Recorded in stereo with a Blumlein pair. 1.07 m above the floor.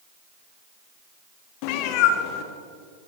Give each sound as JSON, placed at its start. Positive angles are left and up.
{"t": 1.6, "sound": "a cat meowing", "azimuth_deg": 45, "distance_m": 0.8}